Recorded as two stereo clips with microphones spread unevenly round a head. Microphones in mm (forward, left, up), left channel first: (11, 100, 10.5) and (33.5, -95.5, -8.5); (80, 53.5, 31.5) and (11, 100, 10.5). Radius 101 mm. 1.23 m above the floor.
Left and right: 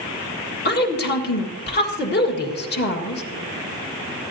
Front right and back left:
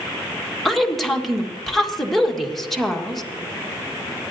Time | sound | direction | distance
0.7 | a woman speaking | 55° left | 1.7 m